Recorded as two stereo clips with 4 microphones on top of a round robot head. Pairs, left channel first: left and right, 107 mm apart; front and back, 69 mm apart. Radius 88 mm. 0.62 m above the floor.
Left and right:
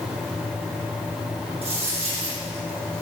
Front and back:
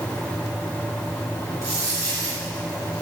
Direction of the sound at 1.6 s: 130° right.